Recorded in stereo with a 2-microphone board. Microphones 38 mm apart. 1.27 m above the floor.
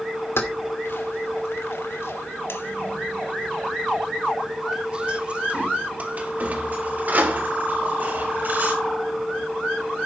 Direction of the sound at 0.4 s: 70° left (ahead or behind).